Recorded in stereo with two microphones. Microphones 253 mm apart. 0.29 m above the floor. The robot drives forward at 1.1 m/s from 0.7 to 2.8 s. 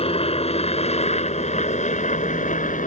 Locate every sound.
0.0 s a helicopter: 25° left (ahead or behind); by 2.9 s 30° left (ahead or behind)